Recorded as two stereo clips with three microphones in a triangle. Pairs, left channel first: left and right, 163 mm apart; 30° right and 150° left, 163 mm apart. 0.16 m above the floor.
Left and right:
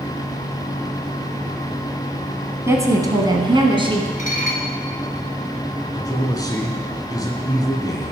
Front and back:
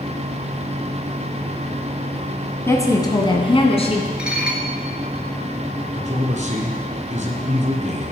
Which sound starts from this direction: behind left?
A man speaking, at 5.9 s.